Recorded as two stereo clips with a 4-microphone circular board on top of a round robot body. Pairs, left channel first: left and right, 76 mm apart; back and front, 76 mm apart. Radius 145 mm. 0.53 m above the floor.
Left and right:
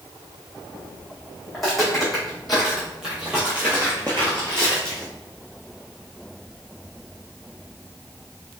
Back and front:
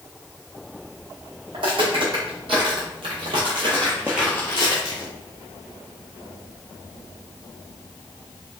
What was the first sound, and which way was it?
Footsteps, straight ahead.